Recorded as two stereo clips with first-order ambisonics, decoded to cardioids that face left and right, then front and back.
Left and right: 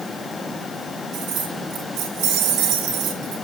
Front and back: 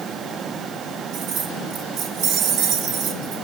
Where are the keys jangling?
130° right, 3.5 m.